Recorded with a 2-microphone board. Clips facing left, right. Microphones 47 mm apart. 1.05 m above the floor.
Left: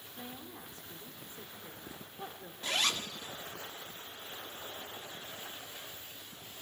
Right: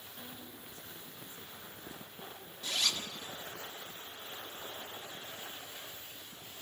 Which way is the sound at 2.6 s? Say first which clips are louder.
Left 3 dB; 45° left (ahead or behind).